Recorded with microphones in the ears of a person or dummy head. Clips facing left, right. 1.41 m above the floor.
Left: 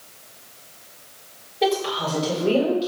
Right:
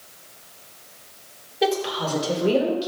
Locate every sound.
1.6 s a woman speaking: 10° right (ahead or behind), 3 m; by 2.9 s 15° right (ahead or behind), 4.5 m